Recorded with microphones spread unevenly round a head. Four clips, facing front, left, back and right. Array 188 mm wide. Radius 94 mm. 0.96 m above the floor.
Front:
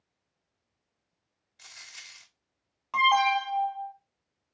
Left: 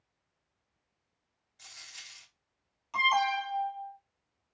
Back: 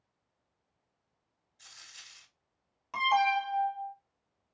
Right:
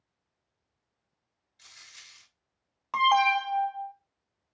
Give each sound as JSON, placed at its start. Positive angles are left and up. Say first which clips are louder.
{"t": 1.6, "sound": "a dropped coin", "louder": "left 2 dB, front 5 dB", "azimuth_deg": 20, "distance_m": 3.0}
{"t": 2.9, "sound": "an alarm", "louder": "right 5 dB, front 4 dB", "azimuth_deg": -95, "distance_m": 1.7}